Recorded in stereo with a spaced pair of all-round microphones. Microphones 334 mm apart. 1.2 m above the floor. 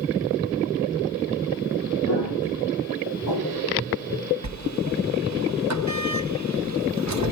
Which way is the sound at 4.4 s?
55° right (ahead or behind).